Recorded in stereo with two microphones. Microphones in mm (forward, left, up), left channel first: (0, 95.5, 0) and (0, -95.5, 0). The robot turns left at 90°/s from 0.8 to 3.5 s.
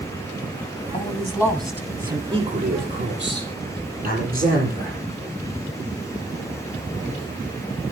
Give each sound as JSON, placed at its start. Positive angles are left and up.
{"t": 0.9, "sound": "a man speaking", "azimuth_deg": 65, "distance_m": 2.0}
{"t": 2.3, "sound": "a man speaking", "azimuth_deg": -25, "distance_m": 8.0}